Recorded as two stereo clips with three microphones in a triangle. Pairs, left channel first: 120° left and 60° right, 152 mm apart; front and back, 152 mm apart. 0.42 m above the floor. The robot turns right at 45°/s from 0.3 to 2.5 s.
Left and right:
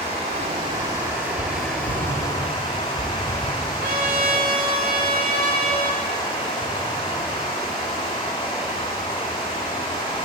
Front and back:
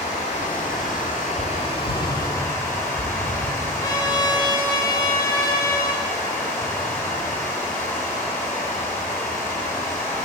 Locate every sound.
0.0 s running water: 30° right, 1.1 m; by 10.3 s 70° left, 1.1 m
3.8 s a trumpet: 60° right, 0.5 m